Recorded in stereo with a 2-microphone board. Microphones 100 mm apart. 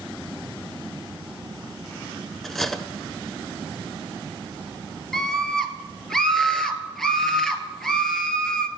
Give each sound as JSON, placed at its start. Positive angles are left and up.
{"t": 2.4, "sound": "cutlery clinking", "side_deg": 0, "distance_m": 0.8}
{"t": 5.1, "sound": "a scream", "side_deg": 5, "distance_m": 1.8}